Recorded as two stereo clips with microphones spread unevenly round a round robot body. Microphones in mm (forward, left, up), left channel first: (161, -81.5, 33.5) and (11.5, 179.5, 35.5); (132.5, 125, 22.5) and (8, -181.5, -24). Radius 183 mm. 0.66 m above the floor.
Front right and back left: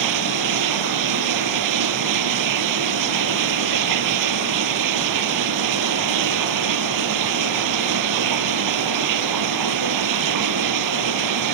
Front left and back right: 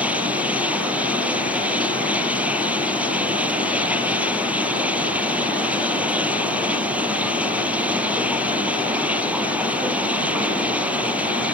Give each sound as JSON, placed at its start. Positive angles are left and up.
{"t": 0.0, "sound": "running water", "azimuth_deg": 160}